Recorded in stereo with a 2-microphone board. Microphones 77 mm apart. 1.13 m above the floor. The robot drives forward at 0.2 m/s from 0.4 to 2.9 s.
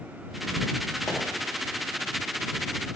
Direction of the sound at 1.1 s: 35° left (ahead or behind).